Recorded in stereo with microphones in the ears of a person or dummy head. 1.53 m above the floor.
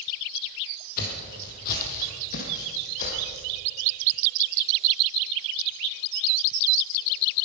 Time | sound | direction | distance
1.0 | footsteps | 50° left (ahead or behind) | 2.5 m